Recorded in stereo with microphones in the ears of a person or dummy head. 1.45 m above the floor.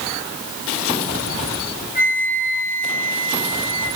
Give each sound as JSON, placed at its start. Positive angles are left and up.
{"t": 1.9, "sound": "a flute", "side_deg": 45, "distance_m": 7.0}